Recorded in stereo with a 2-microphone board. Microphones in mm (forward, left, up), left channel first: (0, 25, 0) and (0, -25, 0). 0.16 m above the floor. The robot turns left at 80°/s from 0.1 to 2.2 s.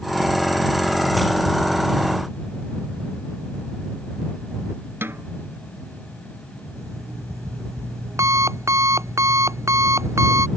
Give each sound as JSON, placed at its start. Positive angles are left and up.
{"t": 5.0, "sound": "a snare drum", "side_deg": -50}
{"t": 6.8, "sound": "an alarm clock", "side_deg": -75}